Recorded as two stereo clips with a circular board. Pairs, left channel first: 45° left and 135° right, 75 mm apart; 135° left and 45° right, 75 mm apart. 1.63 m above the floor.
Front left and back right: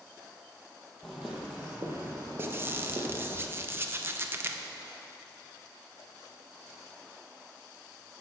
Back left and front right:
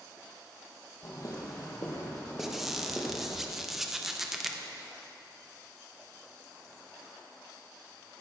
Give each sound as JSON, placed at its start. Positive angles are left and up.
{"t": 1.0, "sound": "footsteps", "azimuth_deg": 130, "distance_m": 2.5}
{"t": 2.4, "sound": "a squeak", "azimuth_deg": -125, "distance_m": 0.7}